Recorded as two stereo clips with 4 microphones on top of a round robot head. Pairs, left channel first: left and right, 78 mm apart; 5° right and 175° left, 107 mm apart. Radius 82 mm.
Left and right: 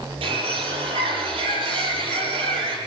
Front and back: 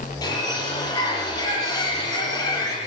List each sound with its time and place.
0.2 s a bird: 65° right, 9.5 m